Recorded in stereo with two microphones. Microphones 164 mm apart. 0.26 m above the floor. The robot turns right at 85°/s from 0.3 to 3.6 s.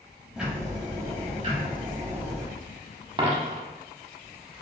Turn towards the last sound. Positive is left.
turn(degrees=-50)  # may be behind; listen again after turning